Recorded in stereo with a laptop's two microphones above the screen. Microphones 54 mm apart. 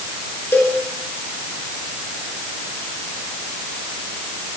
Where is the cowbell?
45° left (ahead or behind), 3.5 m.